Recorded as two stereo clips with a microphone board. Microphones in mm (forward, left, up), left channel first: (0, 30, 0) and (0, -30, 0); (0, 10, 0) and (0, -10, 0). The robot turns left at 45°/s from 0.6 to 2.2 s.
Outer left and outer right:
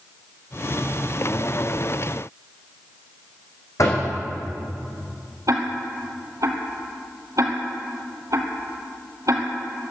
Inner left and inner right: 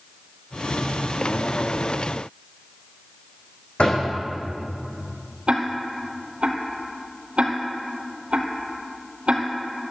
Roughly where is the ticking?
Right.